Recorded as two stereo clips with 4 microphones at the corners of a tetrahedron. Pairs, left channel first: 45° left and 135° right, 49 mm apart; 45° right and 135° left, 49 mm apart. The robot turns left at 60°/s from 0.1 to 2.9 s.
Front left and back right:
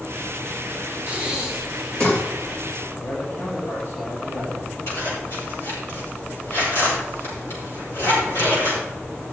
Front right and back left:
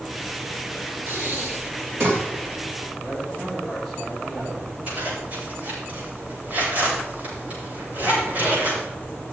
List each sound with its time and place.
1.1 s breathing: 170° left, 2.5 m; by 2.2 s 100° left, 2.5 m
3.0 s a man speaking: 50° left, 7 m
4.9 s a zipper: 75° left, 7 m